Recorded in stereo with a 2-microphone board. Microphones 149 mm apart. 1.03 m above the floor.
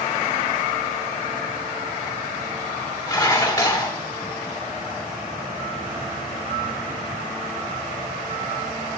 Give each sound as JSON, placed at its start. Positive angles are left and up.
{"t": 3.1, "sound": "dishes clattering", "side_deg": 25, "distance_m": 1.8}